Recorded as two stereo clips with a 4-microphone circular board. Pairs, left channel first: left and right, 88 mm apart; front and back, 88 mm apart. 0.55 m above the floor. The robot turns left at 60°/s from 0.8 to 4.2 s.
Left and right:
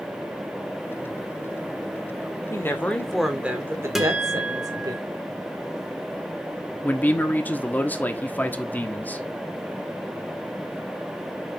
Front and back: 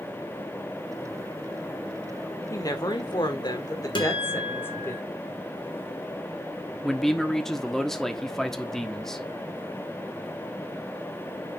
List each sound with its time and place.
2.5 s a woman speaking: 45° left, 1.8 m; by 5.0 s 60° right, 1.8 m
4.0 s a guitar: 5° right, 1.9 m; by 5.0 s 20° right, 1.9 m
6.8 s a man speaking: 75° left, 1.2 m